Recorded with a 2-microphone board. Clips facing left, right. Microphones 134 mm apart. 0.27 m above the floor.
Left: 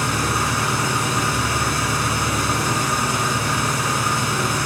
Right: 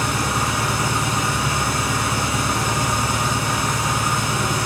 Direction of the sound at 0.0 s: 25° right (ahead or behind).